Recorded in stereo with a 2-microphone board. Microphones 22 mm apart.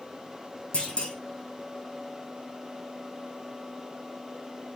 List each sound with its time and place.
0.7 s a clunk: 55° left (ahead or behind), 3.5 m